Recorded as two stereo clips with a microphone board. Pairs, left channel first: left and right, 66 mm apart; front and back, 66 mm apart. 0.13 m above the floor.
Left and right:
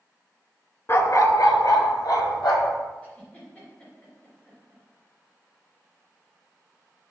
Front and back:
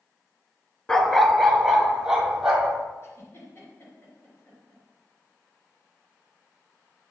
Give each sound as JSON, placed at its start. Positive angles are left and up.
{"t": 0.9, "sound": "a dog barking", "azimuth_deg": 70, "distance_m": 0.6}
{"t": 3.0, "sound": "a giggle", "azimuth_deg": 30, "distance_m": 2.5}